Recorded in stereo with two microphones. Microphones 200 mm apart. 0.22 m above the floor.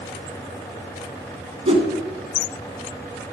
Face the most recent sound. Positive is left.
turn(degrees=-30)  # may be behind; listen again after turning